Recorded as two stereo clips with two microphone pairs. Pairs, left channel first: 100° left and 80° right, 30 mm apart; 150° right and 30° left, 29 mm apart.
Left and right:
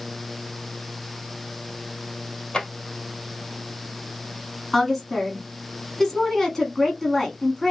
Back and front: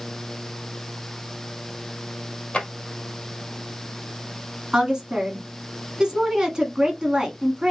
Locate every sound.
2.5 s a drawer: 160° left, 1.7 m
4.7 s a woman speaking: 35° left, 1.1 m